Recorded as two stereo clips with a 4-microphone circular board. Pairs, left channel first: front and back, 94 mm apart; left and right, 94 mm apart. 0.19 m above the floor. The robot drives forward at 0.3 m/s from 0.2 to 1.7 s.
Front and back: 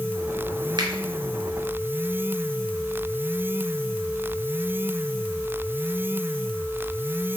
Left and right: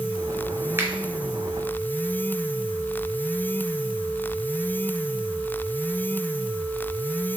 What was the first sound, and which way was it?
A finger snap, 150° right.